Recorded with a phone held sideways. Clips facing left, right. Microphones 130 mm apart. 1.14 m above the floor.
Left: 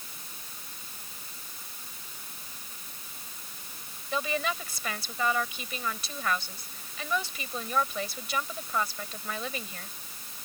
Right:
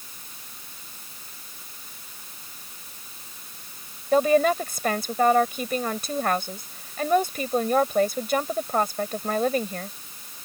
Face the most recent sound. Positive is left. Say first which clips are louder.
# right 12 dB
turn(degrees=-50)  # may be behind; listen again after turning